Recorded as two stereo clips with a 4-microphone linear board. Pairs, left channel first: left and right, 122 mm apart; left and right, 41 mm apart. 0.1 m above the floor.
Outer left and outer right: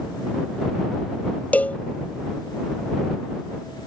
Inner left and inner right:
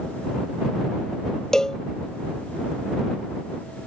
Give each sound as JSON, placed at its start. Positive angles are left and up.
{"t": 1.5, "sound": "a cowbell", "side_deg": 15}